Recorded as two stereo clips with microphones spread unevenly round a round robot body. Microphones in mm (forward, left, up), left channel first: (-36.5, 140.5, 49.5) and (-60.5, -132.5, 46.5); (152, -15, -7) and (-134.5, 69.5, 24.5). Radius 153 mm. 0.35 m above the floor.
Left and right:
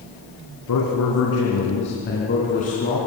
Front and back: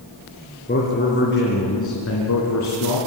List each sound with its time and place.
0.7 s a man speaking: 45° left, 4 m; by 3.0 s 10° left, 3.5 m